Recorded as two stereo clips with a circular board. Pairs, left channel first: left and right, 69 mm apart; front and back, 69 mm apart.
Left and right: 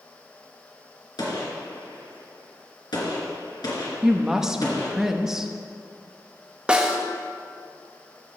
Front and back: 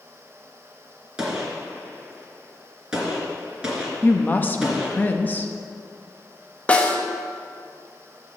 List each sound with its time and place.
1.2 s a gunshot: 100° left, 2.5 m
4.0 s a woman speaking: 10° right, 0.8 m
6.7 s a snare drum: 35° right, 1.1 m